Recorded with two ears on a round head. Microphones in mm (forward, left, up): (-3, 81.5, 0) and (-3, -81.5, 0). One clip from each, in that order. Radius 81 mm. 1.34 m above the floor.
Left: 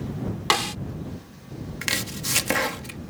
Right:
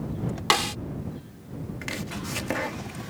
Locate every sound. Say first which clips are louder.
0.5 s a snare drum: even; centre (ahead or behind)
1.8 s chopping: left 8 dB; 80° left